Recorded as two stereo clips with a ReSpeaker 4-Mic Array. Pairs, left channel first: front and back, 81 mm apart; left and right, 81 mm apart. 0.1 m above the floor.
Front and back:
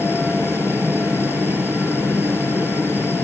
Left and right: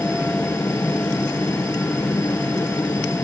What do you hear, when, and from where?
0.0 s a helicopter: 120° left